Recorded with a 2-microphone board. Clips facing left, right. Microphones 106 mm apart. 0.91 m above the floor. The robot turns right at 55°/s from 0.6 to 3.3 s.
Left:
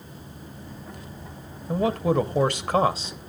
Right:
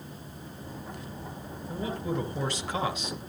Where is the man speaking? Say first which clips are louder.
Left 10 dB; 75° left, 1.0 m; by 3.2 s 155° left, 1.0 m.